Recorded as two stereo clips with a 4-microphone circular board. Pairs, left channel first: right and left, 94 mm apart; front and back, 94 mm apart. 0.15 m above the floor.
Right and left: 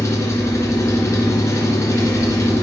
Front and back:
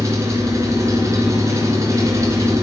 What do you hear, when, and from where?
0.0 s an engine running: 135° right, 1.8 m